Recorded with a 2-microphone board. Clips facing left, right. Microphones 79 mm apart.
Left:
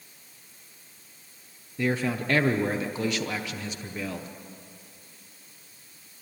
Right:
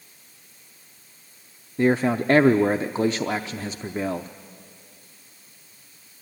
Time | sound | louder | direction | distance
1.8 | a man speaking | right 7 dB | 35° right (ahead or behind) | 0.6 m